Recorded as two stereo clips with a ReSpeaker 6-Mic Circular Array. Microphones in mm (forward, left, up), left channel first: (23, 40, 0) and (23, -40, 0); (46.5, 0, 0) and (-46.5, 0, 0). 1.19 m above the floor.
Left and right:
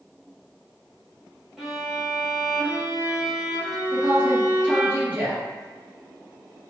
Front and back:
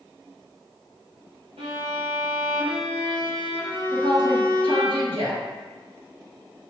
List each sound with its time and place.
1.6 s a violin: 175° right, 0.8 m
3.9 s a woman speaking: 160° right, 1.2 m